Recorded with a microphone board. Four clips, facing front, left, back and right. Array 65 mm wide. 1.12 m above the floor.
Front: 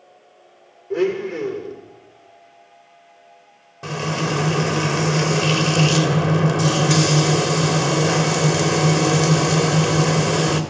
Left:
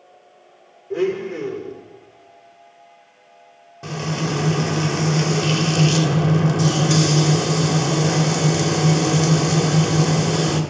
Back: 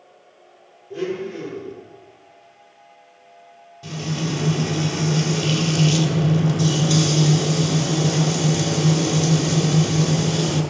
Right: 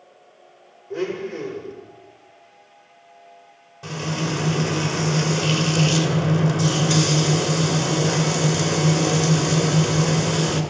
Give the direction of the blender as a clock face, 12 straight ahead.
11 o'clock.